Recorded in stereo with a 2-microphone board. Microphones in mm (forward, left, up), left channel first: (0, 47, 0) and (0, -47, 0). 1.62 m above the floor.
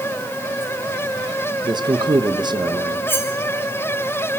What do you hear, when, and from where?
1.6 s a man speaking: 50° right (ahead or behind), 1.3 m
3.1 s cutlery clinking: 25° left (ahead or behind), 2.5 m